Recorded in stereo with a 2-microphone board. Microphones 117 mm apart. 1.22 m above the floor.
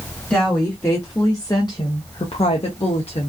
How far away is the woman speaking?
About 1.2 m.